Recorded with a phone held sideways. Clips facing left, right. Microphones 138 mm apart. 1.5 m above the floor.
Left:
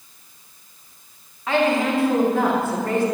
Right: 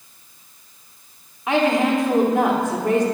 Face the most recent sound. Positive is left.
turn(degrees=-20)  # may be behind; listen again after turning